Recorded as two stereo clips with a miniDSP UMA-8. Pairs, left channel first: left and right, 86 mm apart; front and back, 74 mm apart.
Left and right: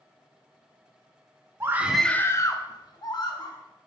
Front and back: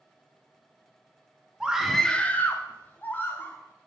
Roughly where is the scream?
Right.